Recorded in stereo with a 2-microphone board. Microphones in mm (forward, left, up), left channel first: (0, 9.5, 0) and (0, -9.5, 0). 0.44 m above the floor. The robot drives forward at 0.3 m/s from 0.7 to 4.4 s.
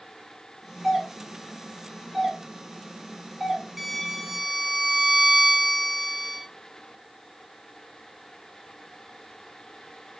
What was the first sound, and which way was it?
A doorbell, 15° right (ahead or behind).